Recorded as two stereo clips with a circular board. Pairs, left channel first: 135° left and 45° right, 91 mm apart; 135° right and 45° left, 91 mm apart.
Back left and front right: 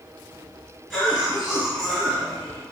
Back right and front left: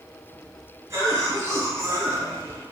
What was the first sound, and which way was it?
A cough, 40° left.